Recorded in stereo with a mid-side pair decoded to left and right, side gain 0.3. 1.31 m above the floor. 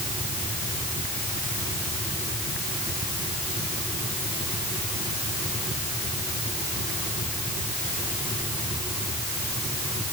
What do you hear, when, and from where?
Only background noise.